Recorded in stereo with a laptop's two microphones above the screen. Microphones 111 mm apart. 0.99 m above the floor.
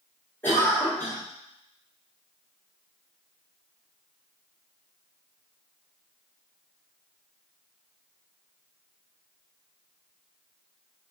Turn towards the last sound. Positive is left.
turn(degrees=20)  # may be behind; listen again after turning